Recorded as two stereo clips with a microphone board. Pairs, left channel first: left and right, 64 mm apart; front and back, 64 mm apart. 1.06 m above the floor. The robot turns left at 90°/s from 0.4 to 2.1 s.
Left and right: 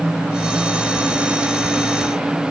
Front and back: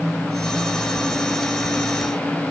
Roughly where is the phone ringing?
No phone ringing in this recording.